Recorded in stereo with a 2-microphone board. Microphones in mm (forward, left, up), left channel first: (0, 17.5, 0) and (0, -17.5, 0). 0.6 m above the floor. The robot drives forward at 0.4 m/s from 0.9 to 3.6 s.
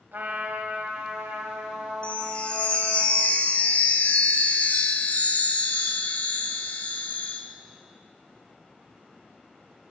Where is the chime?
35° left (ahead or behind), 1.5 m; by 7.4 s 50° left (ahead or behind), 1.2 m.